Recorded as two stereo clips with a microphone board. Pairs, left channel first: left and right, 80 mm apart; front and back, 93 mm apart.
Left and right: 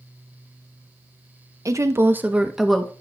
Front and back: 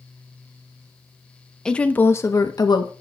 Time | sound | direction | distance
1.6 | a woman speaking | 80° right | 0.7 m